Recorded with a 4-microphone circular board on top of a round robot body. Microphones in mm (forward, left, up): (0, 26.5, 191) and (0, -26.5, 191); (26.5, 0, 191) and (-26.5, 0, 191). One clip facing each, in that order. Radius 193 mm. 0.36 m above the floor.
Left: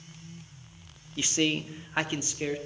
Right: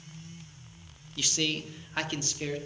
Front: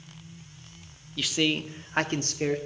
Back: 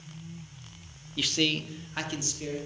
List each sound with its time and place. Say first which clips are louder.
1.2 s a man speaking: left 4 dB, front 2 dB; 100° left, 1.1 m; by 2.6 s 20° left, 1.8 m